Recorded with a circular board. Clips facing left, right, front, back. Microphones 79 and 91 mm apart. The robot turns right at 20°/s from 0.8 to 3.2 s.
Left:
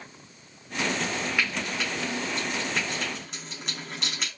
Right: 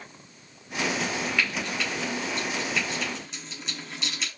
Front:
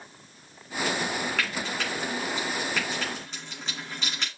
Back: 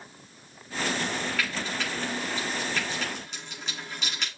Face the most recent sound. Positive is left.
turn(degrees=50)